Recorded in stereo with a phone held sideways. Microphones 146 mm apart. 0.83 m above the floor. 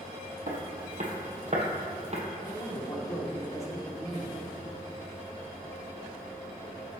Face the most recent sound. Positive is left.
turn(degrees=20)  # may be behind; listen again after turning